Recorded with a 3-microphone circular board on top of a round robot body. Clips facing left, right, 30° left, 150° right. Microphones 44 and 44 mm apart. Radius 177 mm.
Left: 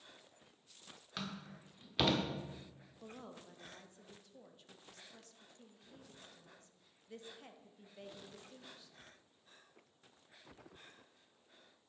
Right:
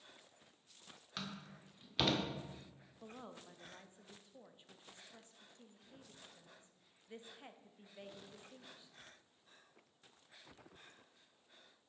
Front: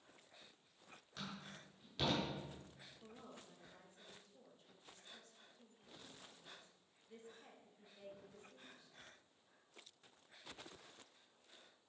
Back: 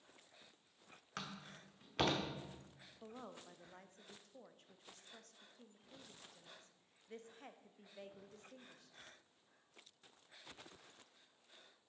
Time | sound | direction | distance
1.2 | a door slam | 175° left | 1.3 m
3.0 | a woman speaking | 155° right | 1.1 m